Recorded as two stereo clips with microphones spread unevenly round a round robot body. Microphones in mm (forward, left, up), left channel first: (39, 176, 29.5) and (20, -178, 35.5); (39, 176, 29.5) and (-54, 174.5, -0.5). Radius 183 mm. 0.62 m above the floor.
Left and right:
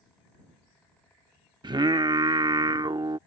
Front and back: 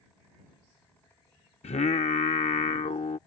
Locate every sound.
1.6 s singing: 15° right